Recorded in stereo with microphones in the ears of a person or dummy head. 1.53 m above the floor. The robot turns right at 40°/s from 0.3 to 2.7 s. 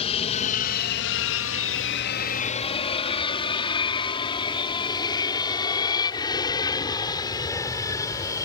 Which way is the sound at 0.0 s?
30° left (ahead or behind).